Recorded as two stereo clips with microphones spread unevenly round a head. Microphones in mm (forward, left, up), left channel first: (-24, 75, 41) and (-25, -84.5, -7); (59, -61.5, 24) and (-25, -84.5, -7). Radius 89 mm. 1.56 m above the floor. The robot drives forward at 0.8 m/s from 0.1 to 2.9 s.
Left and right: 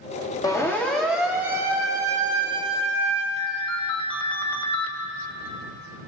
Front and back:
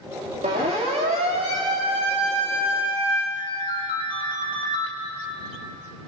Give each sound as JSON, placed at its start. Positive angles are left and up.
{"t": 0.4, "sound": "a siren", "azimuth_deg": 155, "distance_m": 2.5}
{"t": 3.4, "sound": "a ringtone", "azimuth_deg": 140, "distance_m": 2.5}